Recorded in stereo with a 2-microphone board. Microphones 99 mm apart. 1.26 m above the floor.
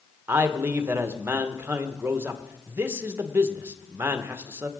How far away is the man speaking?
About 1.0 m.